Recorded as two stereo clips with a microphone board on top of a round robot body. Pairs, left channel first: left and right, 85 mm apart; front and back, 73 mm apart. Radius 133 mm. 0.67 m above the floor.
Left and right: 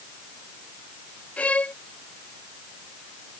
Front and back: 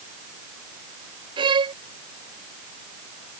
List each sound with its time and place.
1.4 s a violin: 165° left